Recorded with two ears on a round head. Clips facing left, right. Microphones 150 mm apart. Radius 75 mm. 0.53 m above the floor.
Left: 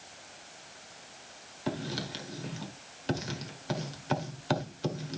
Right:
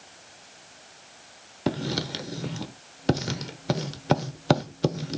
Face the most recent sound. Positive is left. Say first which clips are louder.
# right 7 dB
turn(degrees=-65)  # may be behind; listen again after turning